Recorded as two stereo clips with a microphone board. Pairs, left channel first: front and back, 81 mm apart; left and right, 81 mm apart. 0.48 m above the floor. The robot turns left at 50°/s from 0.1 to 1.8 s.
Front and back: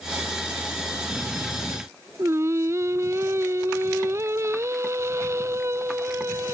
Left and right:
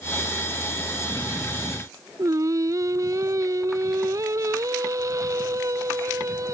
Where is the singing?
130° right.